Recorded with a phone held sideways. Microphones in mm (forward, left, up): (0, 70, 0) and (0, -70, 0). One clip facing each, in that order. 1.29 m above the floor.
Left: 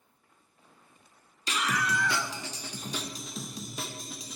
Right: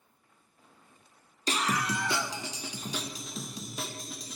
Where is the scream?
40° right (ahead or behind), 1.0 m; by 4.4 s 5° left (ahead or behind), 2 m.